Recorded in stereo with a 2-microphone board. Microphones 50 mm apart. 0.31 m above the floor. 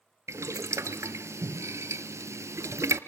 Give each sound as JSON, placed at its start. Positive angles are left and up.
{"t": 0.3, "sound": "boiling", "side_deg": -70, "distance_m": 0.9}